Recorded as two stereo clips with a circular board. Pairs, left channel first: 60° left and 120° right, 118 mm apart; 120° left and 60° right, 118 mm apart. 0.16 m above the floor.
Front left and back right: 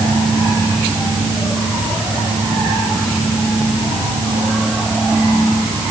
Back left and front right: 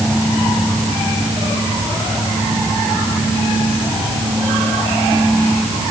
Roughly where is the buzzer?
No buzzer in this recording.